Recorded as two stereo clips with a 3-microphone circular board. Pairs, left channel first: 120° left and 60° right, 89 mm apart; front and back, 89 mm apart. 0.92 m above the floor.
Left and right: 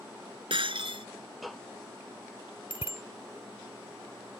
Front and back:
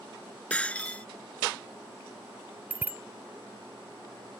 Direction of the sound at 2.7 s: 110° left.